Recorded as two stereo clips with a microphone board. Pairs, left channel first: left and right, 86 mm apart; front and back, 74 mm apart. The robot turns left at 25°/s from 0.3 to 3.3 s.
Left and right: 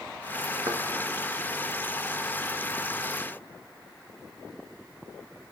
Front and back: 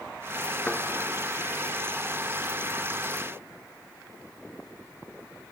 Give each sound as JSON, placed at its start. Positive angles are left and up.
{"t": 0.7, "sound": "a thud", "azimuth_deg": -70, "distance_m": 1.2}